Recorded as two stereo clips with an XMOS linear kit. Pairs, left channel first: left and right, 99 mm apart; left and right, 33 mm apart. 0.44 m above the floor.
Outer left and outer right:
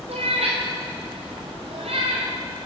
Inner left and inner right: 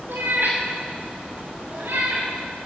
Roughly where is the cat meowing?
Right.